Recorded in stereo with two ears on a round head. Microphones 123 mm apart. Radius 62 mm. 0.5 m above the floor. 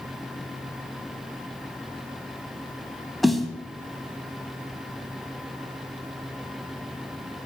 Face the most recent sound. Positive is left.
turn(degrees=0)  # may be behind; listen again after turning